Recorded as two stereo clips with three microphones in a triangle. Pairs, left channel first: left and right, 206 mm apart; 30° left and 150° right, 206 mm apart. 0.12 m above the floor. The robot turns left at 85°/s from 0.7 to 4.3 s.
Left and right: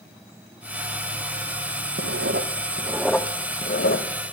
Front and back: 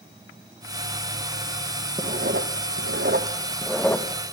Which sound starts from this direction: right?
Writing, at 2.0 s.